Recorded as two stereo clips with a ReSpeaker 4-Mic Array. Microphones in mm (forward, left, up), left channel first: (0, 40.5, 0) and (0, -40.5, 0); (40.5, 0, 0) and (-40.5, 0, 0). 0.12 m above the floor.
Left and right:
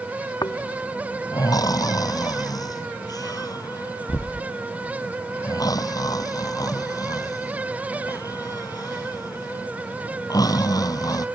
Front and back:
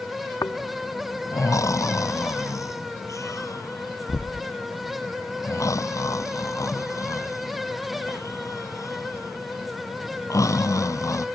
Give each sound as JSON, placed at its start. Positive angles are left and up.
{"t": 0.4, "sound": "snoring", "azimuth_deg": 50}